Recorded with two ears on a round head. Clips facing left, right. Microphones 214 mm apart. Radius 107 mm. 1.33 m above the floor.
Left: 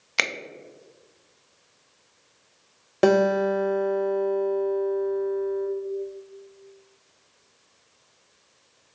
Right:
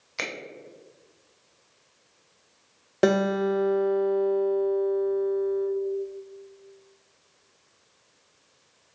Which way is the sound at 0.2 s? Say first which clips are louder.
Left 3 dB; 80° left.